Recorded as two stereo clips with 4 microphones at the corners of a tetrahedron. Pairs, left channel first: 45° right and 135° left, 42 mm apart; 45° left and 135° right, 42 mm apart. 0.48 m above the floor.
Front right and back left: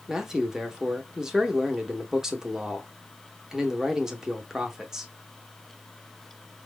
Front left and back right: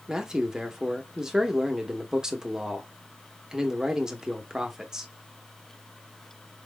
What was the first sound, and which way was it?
A man speaking, 175° left.